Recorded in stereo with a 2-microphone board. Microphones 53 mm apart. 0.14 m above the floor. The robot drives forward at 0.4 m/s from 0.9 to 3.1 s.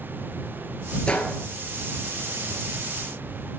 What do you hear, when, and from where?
1.1 s a gunshot: 20° left (ahead or behind), 0.8 m